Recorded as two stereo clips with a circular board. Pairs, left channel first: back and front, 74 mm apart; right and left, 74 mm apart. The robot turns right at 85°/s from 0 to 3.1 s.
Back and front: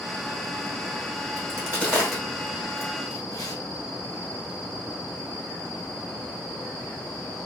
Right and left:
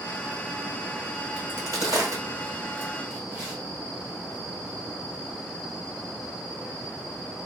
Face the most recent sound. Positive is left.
turn(degrees=170)